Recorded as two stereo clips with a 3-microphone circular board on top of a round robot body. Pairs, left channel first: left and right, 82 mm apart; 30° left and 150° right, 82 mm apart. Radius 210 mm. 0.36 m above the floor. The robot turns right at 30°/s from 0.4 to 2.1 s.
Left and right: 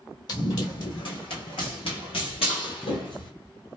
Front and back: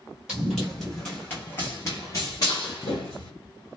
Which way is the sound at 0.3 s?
125° left.